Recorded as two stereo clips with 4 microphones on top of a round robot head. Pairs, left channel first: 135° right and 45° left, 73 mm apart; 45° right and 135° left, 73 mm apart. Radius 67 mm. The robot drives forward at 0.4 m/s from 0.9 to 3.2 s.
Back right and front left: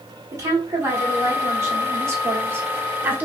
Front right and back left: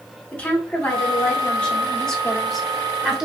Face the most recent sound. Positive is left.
turn(degrees=60)